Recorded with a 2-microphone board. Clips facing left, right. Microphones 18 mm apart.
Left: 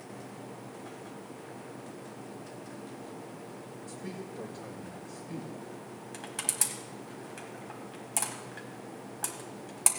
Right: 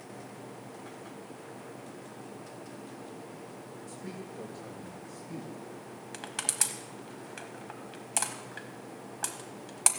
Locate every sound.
3.9 s a man speaking: centre (ahead or behind), 1.6 m
6.1 s crushing: 25° right (ahead or behind), 1.2 m